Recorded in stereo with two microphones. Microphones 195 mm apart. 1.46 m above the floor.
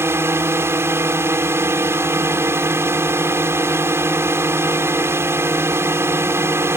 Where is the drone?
15° right (ahead or behind).